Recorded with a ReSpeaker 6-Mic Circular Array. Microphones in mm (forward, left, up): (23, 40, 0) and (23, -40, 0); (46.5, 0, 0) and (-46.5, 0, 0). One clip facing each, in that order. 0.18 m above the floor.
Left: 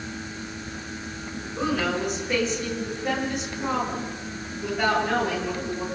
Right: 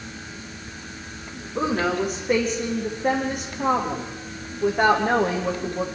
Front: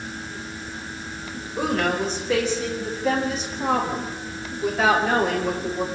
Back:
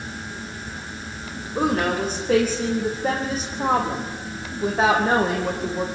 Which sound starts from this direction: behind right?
A woman speaking, at 1.6 s.